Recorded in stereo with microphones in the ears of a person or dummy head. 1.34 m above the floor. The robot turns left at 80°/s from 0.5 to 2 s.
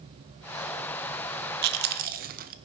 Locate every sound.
1.6 s chewing: 50° right (ahead or behind), 0.5 m; by 2.5 s 45° right (ahead or behind), 0.5 m